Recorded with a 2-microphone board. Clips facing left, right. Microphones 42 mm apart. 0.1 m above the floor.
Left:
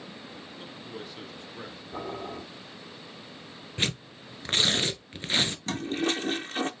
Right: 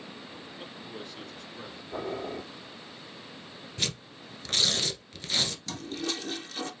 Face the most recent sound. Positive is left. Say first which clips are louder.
# left 6 dB
turn(degrees=40)  # may be behind; listen again after turning